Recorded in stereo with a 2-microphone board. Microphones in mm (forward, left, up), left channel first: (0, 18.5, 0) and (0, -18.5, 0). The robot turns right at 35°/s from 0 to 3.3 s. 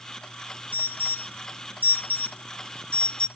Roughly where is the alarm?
Left.